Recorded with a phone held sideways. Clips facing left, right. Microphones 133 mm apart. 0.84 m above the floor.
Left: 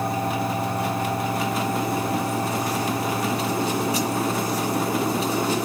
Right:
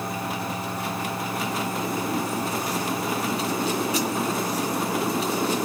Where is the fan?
50° left (ahead or behind), 2 m.